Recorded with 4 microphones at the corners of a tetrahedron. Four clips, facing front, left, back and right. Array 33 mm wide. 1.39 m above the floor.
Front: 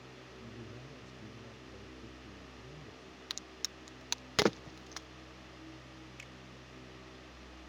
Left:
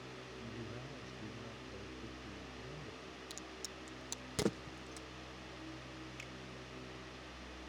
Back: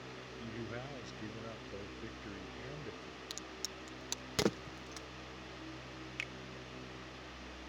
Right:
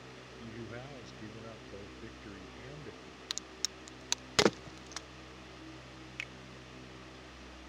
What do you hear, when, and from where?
0.4 s a man speaking: 145° right; by 3.2 s 140° right
3.3 s a crack: 60° right
6.2 s a finger snap: 135° right